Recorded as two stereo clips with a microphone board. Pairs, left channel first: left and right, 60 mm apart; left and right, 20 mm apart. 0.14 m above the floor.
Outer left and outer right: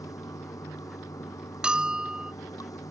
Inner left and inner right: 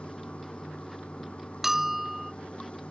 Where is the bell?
15° right (ahead or behind).